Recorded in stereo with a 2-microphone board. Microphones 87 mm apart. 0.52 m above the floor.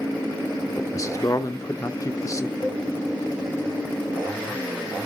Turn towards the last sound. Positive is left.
turn(degrees=30)  # may be behind; listen again after turning